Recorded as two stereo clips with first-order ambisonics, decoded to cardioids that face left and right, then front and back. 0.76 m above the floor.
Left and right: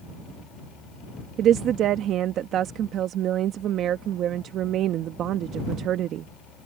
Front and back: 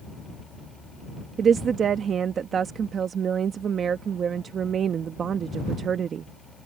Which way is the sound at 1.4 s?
125° right.